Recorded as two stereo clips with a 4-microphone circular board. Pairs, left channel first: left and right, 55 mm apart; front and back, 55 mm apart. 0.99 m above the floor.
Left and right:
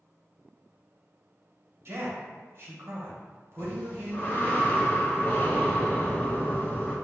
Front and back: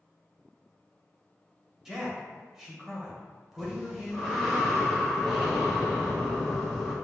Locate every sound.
1.9 s a man speaking: 100° right, 1.1 m
3.6 s breathing: 95° left, 0.9 m